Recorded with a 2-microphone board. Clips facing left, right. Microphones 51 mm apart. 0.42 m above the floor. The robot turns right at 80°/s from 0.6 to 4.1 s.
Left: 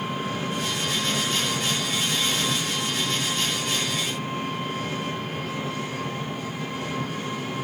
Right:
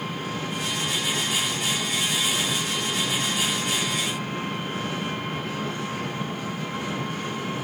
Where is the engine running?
30° left, 5.5 m; by 7.7 s 50° right, 5.5 m.